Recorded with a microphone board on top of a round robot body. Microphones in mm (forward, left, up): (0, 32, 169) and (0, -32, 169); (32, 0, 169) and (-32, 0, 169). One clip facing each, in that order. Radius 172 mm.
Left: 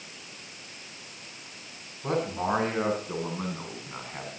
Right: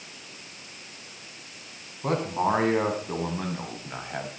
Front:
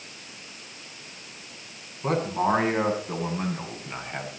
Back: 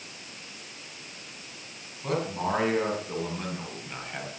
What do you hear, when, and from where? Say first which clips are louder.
2.0 s a man speaking: right 3 dB, front 5 dB; 55° right, 8 m; by 4.3 s 75° right, 5.5 m